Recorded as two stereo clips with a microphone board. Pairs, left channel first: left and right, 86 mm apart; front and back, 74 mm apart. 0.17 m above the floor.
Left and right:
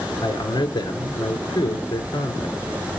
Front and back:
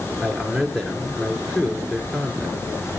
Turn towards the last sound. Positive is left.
turn(degrees=80)